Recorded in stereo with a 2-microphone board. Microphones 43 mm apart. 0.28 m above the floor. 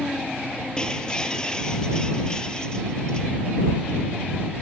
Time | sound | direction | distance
0.8 | breaking glass | 20° left (ahead or behind) | ?